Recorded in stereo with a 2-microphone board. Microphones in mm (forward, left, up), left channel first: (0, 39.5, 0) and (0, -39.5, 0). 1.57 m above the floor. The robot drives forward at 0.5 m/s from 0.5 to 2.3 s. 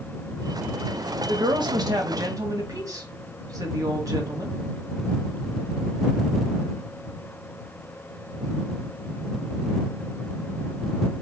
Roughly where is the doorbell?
I don't hear a doorbell.